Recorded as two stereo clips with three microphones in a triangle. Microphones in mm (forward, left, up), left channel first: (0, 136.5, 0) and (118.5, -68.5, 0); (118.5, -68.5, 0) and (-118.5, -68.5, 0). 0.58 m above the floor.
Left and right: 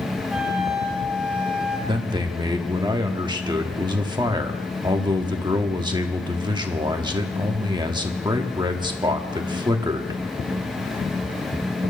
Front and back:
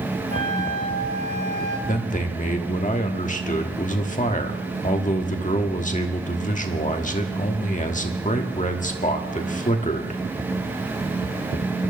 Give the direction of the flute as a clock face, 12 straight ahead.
11 o'clock.